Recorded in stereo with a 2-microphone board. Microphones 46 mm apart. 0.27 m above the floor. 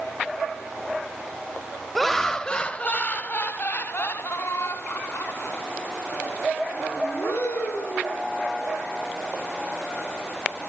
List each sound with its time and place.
1.9 s laughter: centre (ahead or behind), 0.9 m; by 8.2 s 65° left (ahead or behind), 3.5 m